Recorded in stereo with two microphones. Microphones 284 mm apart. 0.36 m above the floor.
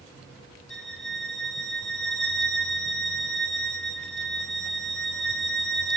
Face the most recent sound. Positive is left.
turn(degrees=0)  # may be behind; listen again after turning